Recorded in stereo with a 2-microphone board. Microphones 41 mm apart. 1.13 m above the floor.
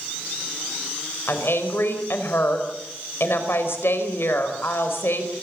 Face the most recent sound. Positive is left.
turn(degrees=75)  # may be behind; listen again after turning